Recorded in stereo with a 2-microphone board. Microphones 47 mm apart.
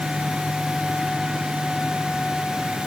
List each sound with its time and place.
Only background noise.